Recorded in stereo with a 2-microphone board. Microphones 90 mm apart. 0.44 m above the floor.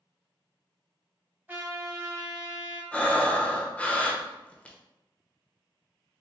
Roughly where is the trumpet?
Centre.